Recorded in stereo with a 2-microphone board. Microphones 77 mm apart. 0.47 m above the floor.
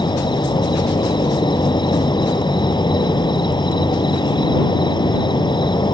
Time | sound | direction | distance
0.0 | an insect | 90° left | ?